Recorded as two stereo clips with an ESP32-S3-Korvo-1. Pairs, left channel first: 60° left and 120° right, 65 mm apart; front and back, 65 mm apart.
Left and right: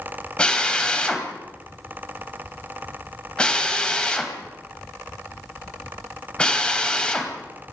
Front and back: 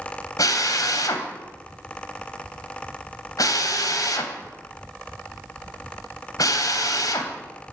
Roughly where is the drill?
Ahead.